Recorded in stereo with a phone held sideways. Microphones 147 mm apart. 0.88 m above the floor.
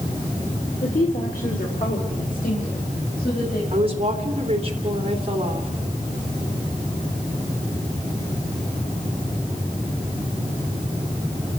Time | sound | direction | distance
0.8 | a woman speaking | 65° left (ahead or behind) | 2.5 m
3.7 | a woman speaking | 40° right (ahead or behind) | 3 m